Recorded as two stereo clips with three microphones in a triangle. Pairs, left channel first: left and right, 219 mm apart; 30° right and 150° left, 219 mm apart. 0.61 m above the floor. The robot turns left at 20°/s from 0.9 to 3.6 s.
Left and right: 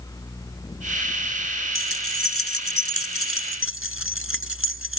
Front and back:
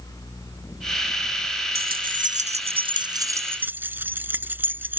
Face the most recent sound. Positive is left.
turn(degrees=70)